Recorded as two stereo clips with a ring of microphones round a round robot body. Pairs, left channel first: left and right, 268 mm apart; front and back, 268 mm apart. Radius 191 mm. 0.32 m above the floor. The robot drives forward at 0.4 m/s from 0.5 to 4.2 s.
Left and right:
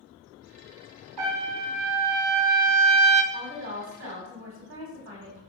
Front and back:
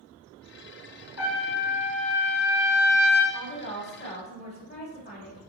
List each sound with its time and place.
1.2 s a trumpet: 55° right, 0.9 m; by 3.2 s 115° right, 0.8 m
3.3 s a woman speaking: 45° right, 2.5 m; by 5.4 s 55° right, 2.5 m